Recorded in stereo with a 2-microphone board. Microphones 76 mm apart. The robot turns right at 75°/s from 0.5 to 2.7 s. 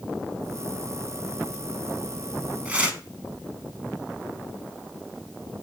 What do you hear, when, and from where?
2.6 s tearing paper: 20° right (ahead or behind), 0.6 m